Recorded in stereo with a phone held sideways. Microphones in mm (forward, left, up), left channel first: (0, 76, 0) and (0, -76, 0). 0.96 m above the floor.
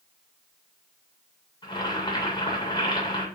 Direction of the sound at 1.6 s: 30° left (ahead or behind).